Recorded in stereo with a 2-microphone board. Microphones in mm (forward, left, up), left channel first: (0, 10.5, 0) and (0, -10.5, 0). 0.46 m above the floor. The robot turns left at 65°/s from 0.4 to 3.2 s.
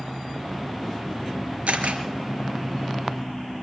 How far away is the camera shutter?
About 4 m.